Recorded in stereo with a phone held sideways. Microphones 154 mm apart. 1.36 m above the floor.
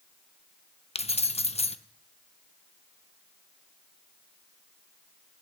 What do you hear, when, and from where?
0.9 s keys jangling: 40° left (ahead or behind), 0.6 m